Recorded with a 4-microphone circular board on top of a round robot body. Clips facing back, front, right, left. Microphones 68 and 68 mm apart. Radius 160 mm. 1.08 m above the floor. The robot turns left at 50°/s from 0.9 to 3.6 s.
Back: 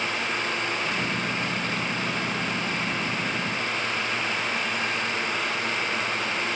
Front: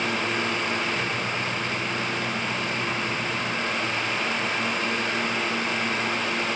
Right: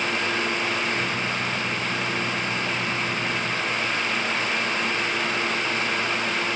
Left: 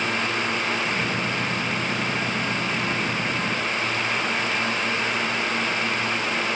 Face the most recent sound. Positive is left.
No sound to turn to.